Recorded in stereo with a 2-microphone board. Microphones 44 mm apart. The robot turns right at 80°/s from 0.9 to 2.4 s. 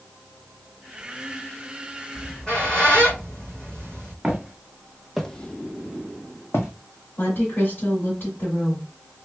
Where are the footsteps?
15° right (ahead or behind), 1.2 m; by 6.7 s 75° left (ahead or behind), 0.8 m.